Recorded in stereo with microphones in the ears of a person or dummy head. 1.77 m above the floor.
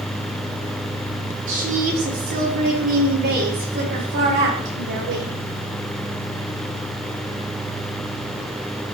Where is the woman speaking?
45° right (ahead or behind), 4 m; by 5.3 s 65° right (ahead or behind), 5.5 m.